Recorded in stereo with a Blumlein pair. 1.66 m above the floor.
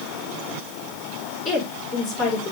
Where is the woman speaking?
30° left, 5 m.